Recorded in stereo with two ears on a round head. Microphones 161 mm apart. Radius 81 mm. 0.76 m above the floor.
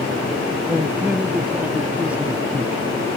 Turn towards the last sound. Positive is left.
turn(degrees=-10)  # may be behind; listen again after turning